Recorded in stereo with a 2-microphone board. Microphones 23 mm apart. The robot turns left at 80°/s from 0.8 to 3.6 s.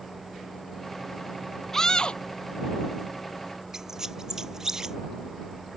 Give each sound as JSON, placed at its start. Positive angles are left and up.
{"t": 1.7, "sound": "a scream", "azimuth_deg": 170}
{"t": 3.7, "sound": "a squeak", "side_deg": -20}